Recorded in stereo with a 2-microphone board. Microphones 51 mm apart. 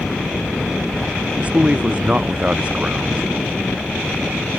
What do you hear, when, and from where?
1.4 s a man speaking: 25° right (ahead or behind)